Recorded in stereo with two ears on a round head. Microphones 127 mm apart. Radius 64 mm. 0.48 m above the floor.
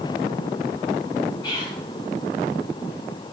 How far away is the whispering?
About 0.8 m.